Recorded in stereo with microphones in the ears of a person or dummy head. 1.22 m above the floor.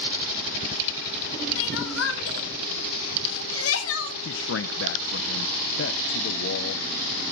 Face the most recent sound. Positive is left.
turn(degrees=65)  # may be behind; listen again after turning